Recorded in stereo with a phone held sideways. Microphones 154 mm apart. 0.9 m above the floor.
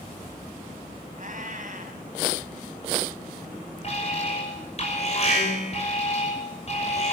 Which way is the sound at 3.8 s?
45° left (ahead or behind).